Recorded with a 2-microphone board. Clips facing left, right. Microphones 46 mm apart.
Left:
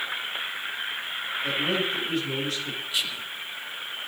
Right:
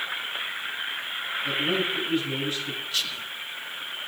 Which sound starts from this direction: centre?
Whispering, at 2.9 s.